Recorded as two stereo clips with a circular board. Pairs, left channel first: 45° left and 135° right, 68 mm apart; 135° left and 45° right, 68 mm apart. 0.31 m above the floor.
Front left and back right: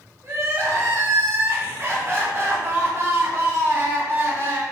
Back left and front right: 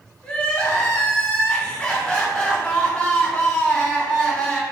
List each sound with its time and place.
0.2 s crying: 155° right, 1.1 m